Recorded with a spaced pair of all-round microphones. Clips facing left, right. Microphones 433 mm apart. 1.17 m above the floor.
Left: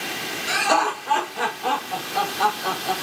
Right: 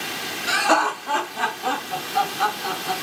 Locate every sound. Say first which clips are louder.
0.5 s laughter: right 1 dB; 75° right (ahead or behind), 1.1 m; by 2.9 s 20° right (ahead or behind), 1.8 m